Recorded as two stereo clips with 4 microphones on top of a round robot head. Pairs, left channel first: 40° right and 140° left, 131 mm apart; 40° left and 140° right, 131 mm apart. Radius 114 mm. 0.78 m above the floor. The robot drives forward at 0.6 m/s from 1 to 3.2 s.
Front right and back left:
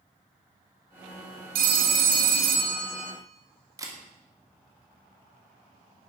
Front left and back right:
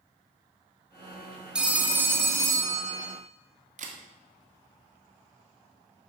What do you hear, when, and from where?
1.6 s a phone ringing: 135° left, 1.2 m; by 3.1 s 155° left, 2.0 m
3.8 s a camera shutter: 155° right, 2 m